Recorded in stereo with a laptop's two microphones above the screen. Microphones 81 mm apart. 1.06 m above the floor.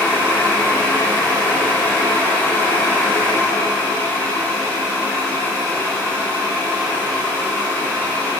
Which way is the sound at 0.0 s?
20° left (ahead or behind).